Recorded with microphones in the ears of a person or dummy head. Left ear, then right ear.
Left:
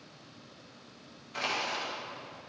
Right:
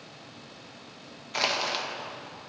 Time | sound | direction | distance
1.3 | crushing | 35° right (ahead or behind) | 0.9 m